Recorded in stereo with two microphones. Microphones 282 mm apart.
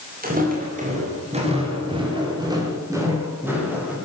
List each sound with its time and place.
0.2 s footsteps: 30° right (ahead or behind), 8 m; by 3.9 s 5° right (ahead or behind), 9.5 m